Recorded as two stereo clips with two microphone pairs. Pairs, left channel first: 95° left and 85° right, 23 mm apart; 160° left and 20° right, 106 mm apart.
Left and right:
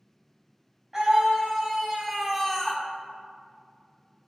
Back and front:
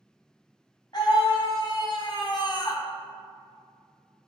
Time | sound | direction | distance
0.9 | a scream | 155° right | 3 m